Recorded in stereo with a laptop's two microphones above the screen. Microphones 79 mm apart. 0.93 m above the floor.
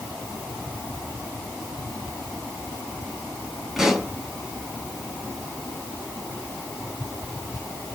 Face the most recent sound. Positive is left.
turn(degrees=-5)  # may be behind; listen again after turning